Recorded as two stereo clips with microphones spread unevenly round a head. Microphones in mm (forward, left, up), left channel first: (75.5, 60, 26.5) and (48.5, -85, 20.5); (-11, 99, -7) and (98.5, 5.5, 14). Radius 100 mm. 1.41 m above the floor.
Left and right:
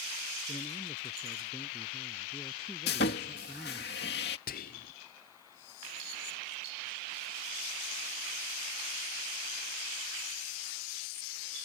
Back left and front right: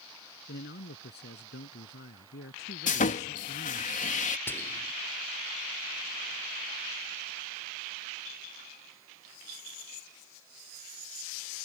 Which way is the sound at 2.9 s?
110° left.